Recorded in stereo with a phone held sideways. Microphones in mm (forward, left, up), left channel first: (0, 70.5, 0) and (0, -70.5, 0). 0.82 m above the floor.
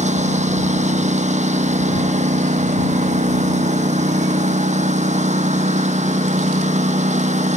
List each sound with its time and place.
0.0 s a lawn mower: 55° right (ahead or behind)